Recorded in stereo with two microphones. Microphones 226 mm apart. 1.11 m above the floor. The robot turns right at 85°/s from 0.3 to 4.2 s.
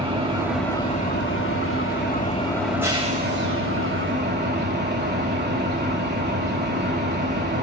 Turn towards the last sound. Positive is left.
turn(degrees=-50)